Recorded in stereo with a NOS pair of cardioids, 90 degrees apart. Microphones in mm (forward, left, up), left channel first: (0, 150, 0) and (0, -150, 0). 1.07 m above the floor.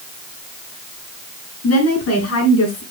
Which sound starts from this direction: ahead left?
A woman speaking, at 1.6 s.